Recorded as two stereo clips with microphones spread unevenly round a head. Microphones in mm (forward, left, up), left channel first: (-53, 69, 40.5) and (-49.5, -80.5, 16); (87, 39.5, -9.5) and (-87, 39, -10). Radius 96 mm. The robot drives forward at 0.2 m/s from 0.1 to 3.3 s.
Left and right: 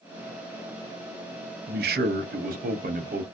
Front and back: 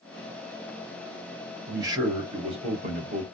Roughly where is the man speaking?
Right.